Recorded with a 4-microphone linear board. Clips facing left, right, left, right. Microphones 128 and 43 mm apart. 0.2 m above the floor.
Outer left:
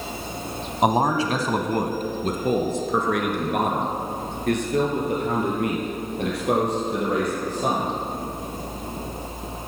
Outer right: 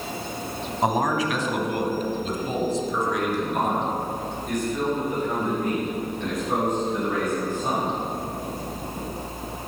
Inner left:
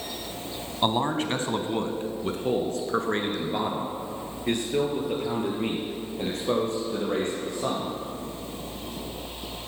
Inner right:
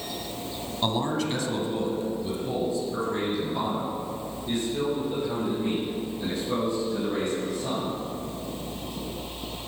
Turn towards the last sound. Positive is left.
turn(degrees=80)